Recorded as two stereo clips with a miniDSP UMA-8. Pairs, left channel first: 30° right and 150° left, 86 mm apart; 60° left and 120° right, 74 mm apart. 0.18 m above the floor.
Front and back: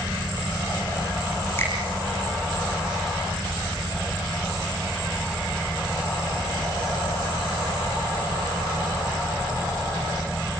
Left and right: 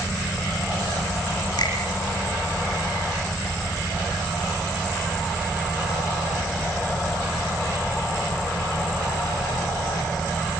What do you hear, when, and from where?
1.6 s a finger snap: 35° left, 7.5 m